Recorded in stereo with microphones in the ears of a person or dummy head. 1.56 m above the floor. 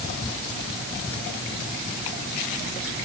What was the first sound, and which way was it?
Only background noise.